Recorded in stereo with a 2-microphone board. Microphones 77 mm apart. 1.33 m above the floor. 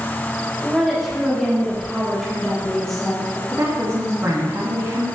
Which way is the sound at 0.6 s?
Centre (ahead or behind).